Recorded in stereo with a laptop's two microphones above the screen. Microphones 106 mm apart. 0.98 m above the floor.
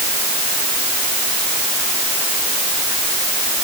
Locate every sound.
Only background noise.